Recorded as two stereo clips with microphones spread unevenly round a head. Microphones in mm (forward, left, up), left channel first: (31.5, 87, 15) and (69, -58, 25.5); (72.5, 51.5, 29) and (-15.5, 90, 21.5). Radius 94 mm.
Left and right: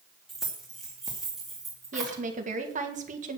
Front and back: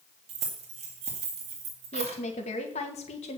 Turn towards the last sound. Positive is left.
turn(degrees=-40)